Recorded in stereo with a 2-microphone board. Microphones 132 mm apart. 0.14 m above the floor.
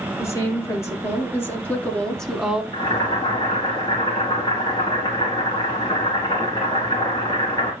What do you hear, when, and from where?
0.2 s a woman speaking: 25° left (ahead or behind), 3.5 m; by 2.6 s 10° right (ahead or behind), 1.3 m
2.7 s boiling: 30° left (ahead or behind), 4.5 m